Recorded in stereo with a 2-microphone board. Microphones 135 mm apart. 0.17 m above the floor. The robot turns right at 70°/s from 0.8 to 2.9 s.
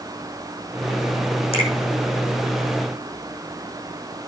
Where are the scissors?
No scissors in this recording.